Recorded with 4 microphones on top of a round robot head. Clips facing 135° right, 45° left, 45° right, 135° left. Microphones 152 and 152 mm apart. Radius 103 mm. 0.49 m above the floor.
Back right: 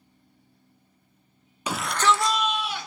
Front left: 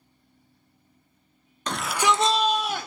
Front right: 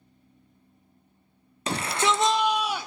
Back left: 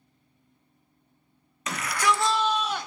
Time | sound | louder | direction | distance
1.7 | a shout | even, front right 1 dB | 65° right | 0.7 m